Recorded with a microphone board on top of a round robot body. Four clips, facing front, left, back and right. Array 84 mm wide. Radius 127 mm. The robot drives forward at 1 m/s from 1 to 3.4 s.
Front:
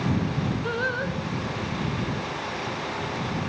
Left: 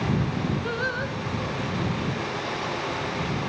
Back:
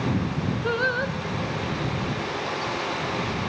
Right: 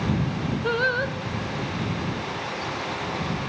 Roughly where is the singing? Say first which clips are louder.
Right 4 dB, back 3 dB; behind right.